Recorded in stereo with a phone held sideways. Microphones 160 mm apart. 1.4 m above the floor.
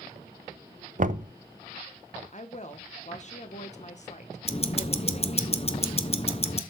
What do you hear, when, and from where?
1.0 s knocking: 55° right (ahead or behind), 0.5 m
2.3 s a woman speaking: 50° left (ahead or behind), 1.1 m
4.5 s ticking: 40° left (ahead or behind), 0.6 m